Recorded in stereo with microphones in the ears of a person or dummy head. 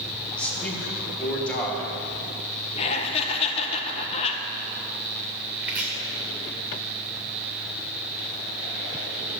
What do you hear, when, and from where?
0.4 s a man speaking: 5° left (ahead or behind), 2 m
2.8 s laughter: 30° left (ahead or behind), 1.4 m
5.6 s chopping: 10° right (ahead or behind), 1.9 m